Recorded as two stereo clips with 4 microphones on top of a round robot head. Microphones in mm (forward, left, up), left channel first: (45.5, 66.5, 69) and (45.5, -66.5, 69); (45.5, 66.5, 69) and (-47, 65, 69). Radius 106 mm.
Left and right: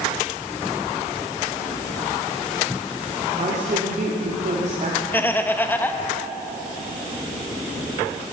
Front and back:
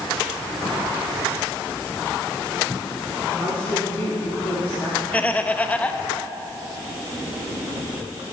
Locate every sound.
3.4 s a woman speaking: 70° right, 2.0 m
5.1 s laughter: 45° left, 0.8 m